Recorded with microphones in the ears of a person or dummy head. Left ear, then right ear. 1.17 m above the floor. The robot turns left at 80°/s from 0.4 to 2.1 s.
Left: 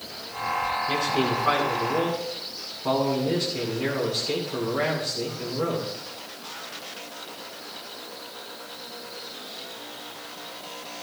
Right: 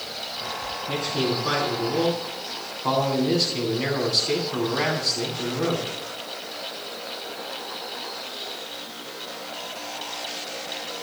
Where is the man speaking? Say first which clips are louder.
Right 3 dB; 65° left, 8.5 m; by 5.9 s 35° right, 8.5 m.